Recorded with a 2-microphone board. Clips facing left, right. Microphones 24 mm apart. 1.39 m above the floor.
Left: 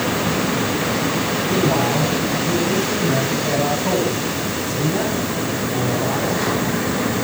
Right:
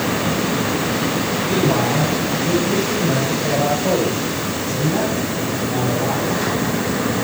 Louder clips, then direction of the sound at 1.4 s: Right 1 dB; 30° right (ahead or behind).